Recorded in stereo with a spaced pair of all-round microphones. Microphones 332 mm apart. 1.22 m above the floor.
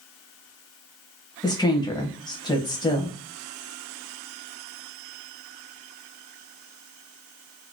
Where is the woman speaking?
15° left (ahead or behind), 0.9 m.